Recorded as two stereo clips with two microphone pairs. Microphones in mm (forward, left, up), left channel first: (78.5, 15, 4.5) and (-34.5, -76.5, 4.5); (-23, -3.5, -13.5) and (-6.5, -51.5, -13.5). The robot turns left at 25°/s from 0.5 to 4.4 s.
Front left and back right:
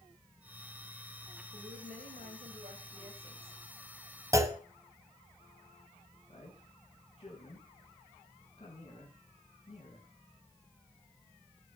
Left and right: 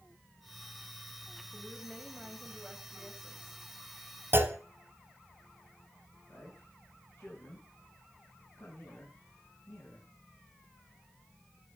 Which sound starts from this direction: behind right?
A woman speaking, at 1.5 s.